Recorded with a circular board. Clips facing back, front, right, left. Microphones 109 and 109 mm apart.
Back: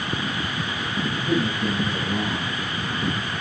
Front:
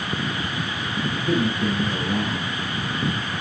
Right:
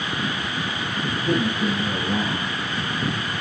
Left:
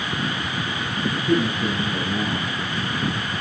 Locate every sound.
1.2 s a man speaking: 80° right, 4.5 m